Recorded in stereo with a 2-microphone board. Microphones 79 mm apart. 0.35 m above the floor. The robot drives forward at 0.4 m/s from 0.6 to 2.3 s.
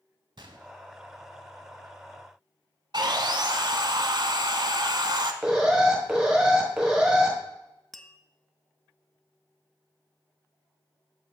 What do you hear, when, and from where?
0.4 s a gunshot: 75° right (ahead or behind), 0.8 m
2.9 s sawing: 65° right (ahead or behind), 0.8 m
5.4 s an alarm: 10° right (ahead or behind), 1.6 m
7.9 s tapping: 5° left (ahead or behind), 0.6 m